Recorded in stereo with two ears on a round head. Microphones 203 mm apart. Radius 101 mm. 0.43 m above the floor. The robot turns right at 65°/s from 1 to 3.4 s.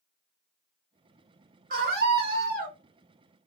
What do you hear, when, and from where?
1.7 s a scream: 120° right, 1.3 m; by 2.8 s 50° right, 1.3 m